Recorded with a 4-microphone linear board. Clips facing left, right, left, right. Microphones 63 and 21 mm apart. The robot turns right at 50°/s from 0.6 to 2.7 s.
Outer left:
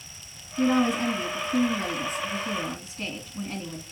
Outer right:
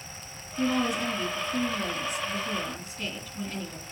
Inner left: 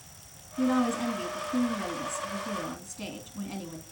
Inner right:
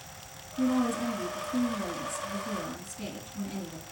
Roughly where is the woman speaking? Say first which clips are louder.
Outer left 4 dB, inner left 1 dB; ahead left.